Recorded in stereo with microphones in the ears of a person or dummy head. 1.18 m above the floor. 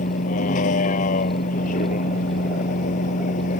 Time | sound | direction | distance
0.0 | a vehicle | 40° left (ahead or behind) | ?